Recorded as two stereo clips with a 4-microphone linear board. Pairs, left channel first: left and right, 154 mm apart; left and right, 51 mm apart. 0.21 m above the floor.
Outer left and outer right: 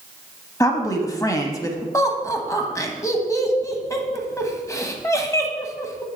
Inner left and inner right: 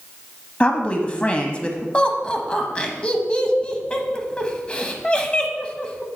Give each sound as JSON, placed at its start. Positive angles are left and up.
{"t": 0.6, "sound": "a woman speaking", "side_deg": 20, "distance_m": 1.1}
{"t": 1.9, "sound": "laughter", "side_deg": 20, "distance_m": 1.0}